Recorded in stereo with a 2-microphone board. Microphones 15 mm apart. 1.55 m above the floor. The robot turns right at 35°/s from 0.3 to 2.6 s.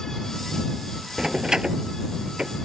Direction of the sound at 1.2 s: 30° right (ahead or behind).